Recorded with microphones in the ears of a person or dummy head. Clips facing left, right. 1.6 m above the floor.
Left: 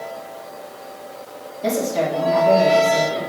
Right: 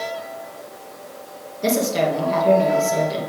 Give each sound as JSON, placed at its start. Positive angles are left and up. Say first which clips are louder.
{"t": 1.6, "sound": "a woman speaking", "louder": "right 1 dB", "side_deg": -60, "distance_m": 2.0}